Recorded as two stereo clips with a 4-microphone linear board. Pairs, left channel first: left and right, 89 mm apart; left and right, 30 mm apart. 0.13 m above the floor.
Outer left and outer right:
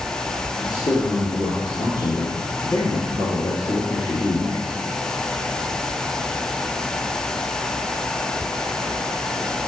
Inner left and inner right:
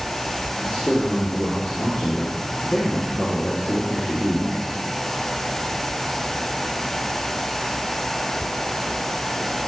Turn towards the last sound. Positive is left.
turn(degrees=45)  # may be behind; listen again after turning